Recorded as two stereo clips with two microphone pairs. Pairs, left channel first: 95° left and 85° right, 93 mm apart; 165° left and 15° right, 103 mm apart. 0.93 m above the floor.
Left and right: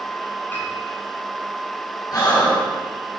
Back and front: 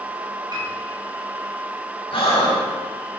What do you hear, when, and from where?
0.5 s a piano: 25° left, 6 m
2.1 s breathing: 135° left, 5 m